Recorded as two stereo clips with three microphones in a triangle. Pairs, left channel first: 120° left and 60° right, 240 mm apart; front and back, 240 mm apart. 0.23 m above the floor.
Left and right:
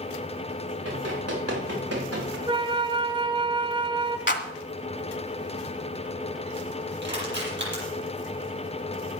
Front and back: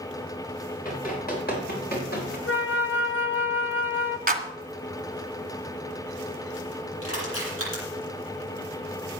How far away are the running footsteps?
About 9.5 m.